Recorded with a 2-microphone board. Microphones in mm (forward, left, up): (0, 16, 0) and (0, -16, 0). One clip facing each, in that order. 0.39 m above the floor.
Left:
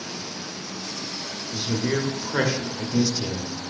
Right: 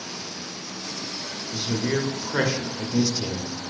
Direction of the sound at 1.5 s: Centre (ahead or behind).